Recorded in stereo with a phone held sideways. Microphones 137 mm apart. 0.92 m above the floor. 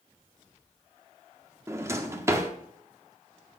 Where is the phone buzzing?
I don't hear a phone buzzing.